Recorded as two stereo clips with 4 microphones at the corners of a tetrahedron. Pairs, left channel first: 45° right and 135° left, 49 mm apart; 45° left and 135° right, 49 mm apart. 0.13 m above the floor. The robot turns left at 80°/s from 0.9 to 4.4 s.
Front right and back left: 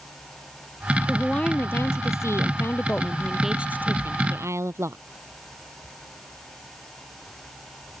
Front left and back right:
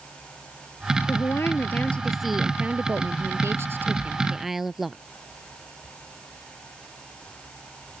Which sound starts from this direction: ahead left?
A woman speaking, at 1.1 s.